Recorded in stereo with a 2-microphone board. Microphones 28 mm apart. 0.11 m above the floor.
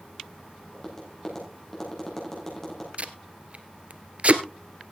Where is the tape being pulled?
50° right (ahead or behind), 1.2 m.